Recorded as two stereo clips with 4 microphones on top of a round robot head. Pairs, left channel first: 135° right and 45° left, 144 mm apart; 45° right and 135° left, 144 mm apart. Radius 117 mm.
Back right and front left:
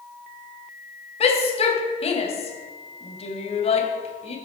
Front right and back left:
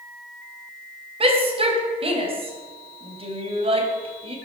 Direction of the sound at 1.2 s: Straight behind.